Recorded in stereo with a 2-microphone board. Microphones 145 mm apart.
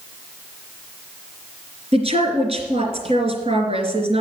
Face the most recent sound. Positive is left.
turn(degrees=-50)  # may be behind; listen again after turning